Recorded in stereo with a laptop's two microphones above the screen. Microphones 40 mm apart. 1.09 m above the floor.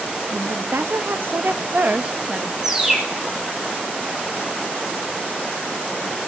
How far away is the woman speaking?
About 1.9 m.